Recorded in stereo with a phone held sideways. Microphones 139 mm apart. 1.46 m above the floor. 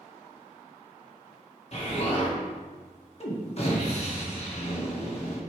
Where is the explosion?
45° left (ahead or behind), 1.4 m.